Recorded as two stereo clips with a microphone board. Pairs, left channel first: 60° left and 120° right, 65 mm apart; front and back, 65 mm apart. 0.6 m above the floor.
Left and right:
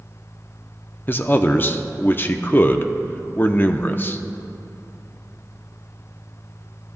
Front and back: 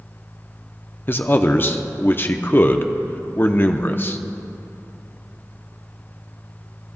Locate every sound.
1.1 s a man speaking: 30° left, 0.7 m